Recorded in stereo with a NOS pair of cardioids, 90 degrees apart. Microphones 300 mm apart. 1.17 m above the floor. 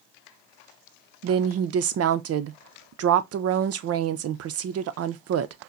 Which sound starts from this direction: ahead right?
A woman speaking, at 1.2 s.